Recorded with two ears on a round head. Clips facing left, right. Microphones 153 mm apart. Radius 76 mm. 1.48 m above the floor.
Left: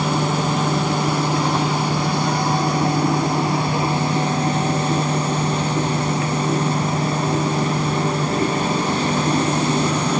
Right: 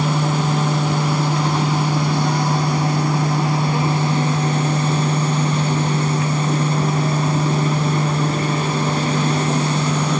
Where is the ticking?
I don't hear ticking.